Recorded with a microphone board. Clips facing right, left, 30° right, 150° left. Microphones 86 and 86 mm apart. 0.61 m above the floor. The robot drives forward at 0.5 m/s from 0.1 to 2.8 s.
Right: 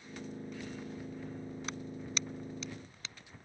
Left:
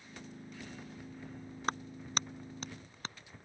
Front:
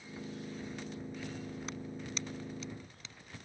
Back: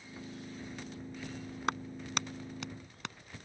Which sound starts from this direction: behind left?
A clap, at 1.7 s.